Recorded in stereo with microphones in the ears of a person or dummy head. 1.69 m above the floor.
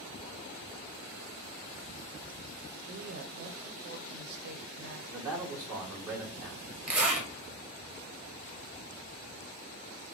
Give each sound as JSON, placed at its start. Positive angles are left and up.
{"t": 2.8, "sound": "a woman speaking", "side_deg": -55, "distance_m": 0.6}
{"t": 5.1, "sound": "a man speaking", "side_deg": -10, "distance_m": 2.0}
{"t": 6.9, "sound": "a zipper", "side_deg": -5, "distance_m": 1.0}